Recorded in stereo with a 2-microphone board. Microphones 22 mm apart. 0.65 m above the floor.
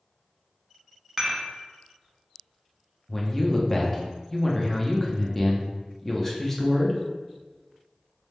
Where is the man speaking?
10° left (ahead or behind), 0.8 m.